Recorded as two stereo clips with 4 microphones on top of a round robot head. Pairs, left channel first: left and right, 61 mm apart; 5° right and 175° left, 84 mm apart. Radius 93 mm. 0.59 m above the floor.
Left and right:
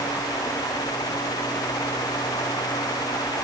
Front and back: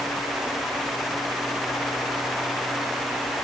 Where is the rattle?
No rattle in this recording.